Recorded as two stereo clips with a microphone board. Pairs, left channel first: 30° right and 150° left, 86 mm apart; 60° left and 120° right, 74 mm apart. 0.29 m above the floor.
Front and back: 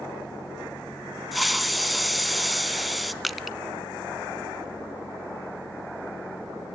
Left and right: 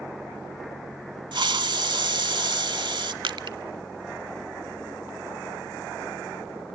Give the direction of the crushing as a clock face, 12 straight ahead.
4 o'clock.